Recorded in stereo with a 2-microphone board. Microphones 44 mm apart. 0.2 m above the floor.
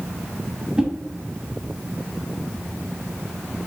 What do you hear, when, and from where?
0.8 s a whoosh: 15° right (ahead or behind), 0.8 m